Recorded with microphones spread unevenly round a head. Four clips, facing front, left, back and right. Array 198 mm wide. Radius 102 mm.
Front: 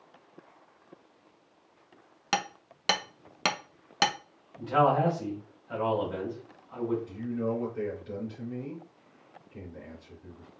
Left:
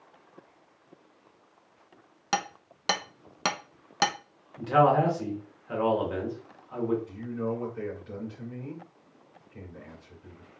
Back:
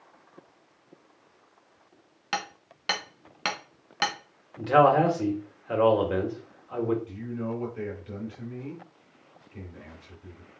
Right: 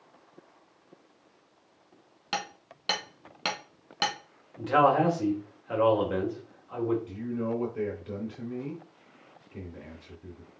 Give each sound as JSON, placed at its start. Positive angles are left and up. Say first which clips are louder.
{"t": 2.3, "sound": "hammering", "louder": "left 4 dB, front 2 dB", "azimuth_deg": 70, "distance_m": 0.8}
{"t": 4.6, "sound": "a man speaking", "louder": "left 1 dB, back 5 dB", "azimuth_deg": -170, "distance_m": 2.5}
{"t": 7.1, "sound": "a man speaking", "louder": "right 1 dB, front 2 dB", "azimuth_deg": -85, "distance_m": 2.5}